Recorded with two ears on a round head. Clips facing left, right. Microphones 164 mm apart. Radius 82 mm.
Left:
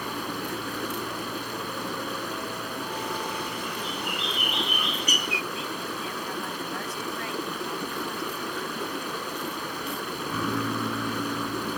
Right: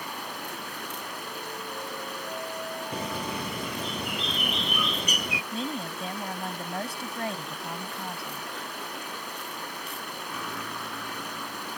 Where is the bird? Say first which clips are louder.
Even; 75° right (ahead or behind).